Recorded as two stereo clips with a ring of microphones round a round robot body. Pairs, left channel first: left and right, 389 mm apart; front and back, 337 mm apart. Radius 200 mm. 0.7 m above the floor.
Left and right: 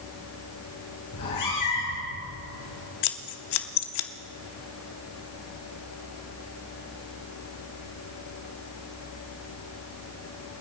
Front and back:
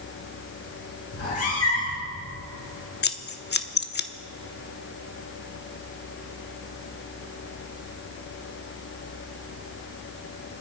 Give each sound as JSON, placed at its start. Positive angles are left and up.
{"t": 1.1, "sound": "a cat meowing", "azimuth_deg": 45, "distance_m": 5.5}
{"t": 3.0, "sound": "scissors", "azimuth_deg": 60, "distance_m": 1.0}